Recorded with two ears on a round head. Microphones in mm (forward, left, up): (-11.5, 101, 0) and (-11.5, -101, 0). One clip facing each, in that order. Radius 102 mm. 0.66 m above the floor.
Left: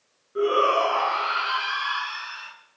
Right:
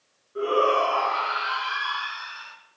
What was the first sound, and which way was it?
A shout, 25° left (ahead or behind).